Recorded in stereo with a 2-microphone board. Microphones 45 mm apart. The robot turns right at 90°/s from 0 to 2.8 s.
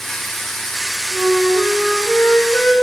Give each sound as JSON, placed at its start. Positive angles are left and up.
{"t": 1.1, "sound": "a flute", "azimuth_deg": -55, "distance_m": 7.5}